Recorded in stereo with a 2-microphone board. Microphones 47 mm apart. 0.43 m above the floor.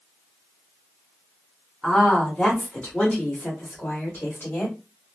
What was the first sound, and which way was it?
A woman speaking, 5° left (ahead or behind).